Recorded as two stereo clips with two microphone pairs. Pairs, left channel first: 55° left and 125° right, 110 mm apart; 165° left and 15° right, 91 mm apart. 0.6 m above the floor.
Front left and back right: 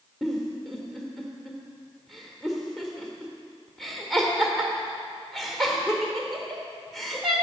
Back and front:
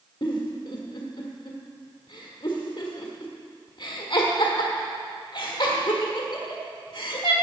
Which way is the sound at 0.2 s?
145° left.